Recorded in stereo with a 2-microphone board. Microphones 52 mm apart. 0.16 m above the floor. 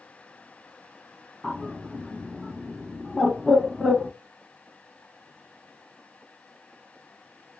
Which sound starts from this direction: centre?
A bird, at 1.4 s.